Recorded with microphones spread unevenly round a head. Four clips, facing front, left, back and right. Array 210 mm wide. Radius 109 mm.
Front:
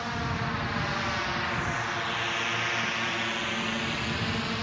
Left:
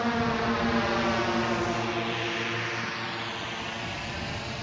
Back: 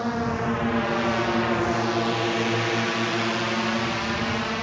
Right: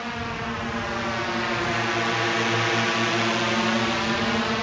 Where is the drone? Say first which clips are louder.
Left 4 dB, back 7 dB; 150° left; by 4.6 s 100° right.